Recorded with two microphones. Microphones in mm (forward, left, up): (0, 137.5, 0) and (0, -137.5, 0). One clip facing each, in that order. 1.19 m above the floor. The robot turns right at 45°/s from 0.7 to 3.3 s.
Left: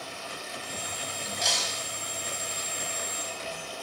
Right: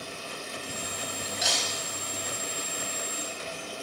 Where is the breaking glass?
5° right (ahead or behind), 3.5 m; by 1.8 s 10° left (ahead or behind), 3.5 m.